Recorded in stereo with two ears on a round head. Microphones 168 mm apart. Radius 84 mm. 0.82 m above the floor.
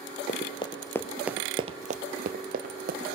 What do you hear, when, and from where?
0.3 s running footsteps: 35° left (ahead or behind), 1.4 m; by 3.0 s 50° right (ahead or behind), 2 m